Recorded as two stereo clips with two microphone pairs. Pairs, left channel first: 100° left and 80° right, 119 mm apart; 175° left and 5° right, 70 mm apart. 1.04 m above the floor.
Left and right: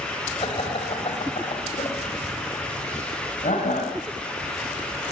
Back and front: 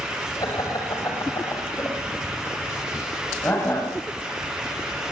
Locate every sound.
0.4 s laughter: 145° left, 6 m; by 3.9 s 115° left, 8 m